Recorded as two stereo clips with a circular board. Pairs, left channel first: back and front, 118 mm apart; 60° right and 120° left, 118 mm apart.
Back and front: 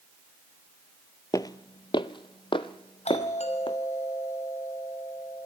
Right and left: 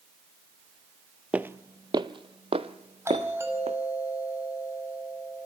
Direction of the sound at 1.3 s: 175° right.